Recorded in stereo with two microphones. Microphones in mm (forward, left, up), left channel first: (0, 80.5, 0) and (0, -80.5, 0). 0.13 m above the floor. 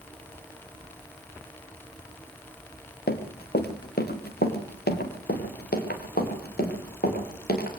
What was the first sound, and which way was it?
Running footsteps, 85° left.